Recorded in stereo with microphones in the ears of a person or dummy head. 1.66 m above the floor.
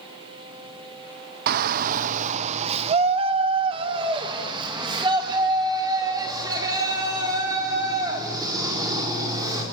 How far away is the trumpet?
I don't hear a trumpet.